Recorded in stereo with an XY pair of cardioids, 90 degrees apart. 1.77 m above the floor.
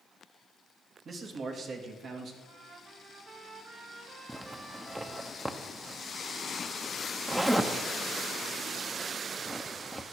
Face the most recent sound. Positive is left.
turn(degrees=-10)